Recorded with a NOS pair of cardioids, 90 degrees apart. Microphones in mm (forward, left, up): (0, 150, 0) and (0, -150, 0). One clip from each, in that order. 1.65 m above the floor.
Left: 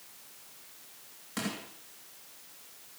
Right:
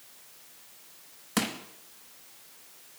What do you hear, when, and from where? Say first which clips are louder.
1.4 s crushing: right 6 dB; 65° right, 3 m